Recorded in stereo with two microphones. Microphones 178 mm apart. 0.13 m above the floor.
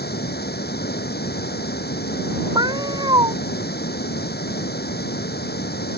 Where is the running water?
65° left (ahead or behind).